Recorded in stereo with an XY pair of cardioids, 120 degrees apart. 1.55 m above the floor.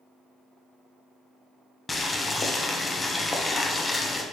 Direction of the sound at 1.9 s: 20° left.